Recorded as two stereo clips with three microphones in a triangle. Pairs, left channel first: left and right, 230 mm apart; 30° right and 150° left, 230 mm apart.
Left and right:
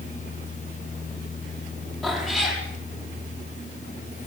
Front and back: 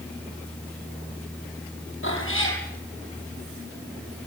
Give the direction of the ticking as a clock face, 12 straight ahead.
I don't hear ticking.